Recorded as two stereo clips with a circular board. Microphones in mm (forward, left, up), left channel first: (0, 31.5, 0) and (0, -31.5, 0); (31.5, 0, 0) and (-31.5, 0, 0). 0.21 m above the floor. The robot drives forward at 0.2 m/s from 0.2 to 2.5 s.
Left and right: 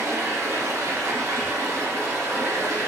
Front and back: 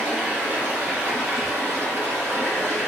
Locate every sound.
0.0 s running water: 115° right, 1.1 m; by 2.9 s 140° right, 1.3 m